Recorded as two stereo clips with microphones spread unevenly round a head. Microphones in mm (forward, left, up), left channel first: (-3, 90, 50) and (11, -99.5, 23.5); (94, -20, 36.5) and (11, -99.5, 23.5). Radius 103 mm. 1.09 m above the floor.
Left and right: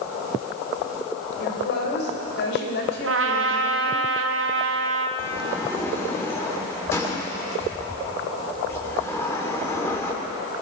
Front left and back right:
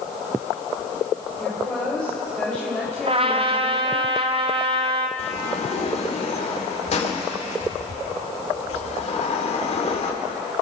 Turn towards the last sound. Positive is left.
turn(degrees=15)